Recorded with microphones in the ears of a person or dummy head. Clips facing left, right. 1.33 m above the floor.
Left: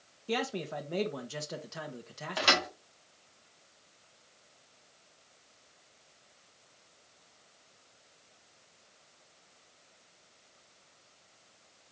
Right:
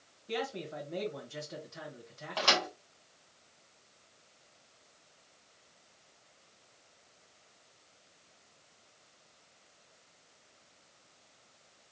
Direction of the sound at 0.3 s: 70° left (ahead or behind).